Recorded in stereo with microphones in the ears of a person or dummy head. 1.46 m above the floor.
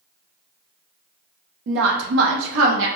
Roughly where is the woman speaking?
Right.